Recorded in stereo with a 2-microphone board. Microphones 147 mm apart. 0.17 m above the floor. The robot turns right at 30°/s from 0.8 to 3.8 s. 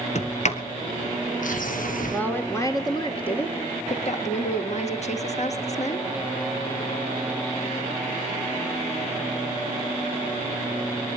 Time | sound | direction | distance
0.1 | a sliding door | 55° left (ahead or behind) | 1.5 m
2.1 | a woman speaking | 10° left | 3 m